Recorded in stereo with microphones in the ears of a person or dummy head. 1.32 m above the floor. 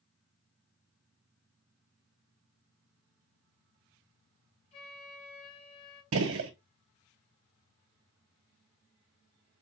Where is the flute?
30° left (ahead or behind), 3 m.